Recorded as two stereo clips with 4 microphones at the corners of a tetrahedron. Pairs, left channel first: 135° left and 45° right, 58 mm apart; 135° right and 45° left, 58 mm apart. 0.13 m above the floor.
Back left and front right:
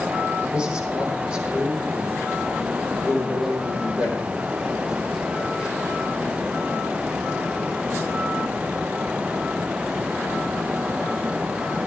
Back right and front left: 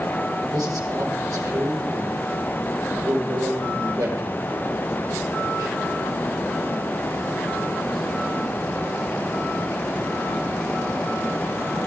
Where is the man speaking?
25° left, 4 m.